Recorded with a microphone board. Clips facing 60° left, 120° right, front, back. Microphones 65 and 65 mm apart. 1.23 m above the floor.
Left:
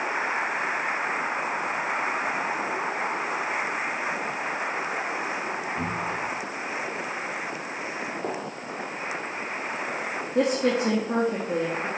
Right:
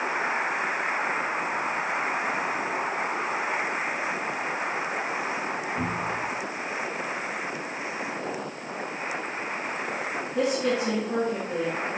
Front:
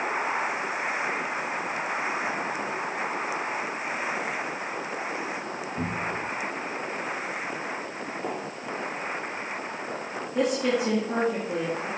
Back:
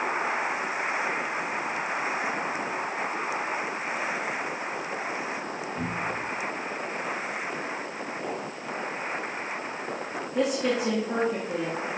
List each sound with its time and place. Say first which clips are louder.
5.8 s a cupboard door: even, front 1 dB; 55° right, 1.0 m
8.2 s a gunshot: left 1 dB, front 1 dB; 80° left, 2.5 m
10.3 s a woman speaking: left 2 dB, front 1 dB; 95° left, 1.8 m